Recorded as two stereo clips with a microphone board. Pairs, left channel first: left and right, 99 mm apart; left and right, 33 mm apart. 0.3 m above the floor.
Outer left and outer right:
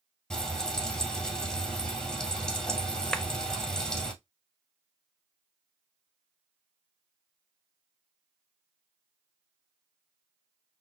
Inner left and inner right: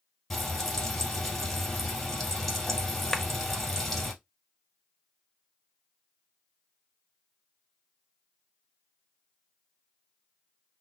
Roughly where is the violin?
I don't hear a violin.